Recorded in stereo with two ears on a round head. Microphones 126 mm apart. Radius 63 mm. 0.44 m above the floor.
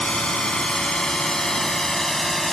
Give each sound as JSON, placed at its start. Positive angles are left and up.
{"t": 0.0, "sound": "a drone", "side_deg": 5}